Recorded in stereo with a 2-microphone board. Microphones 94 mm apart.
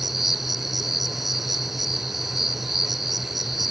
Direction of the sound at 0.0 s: Centre (ahead or behind).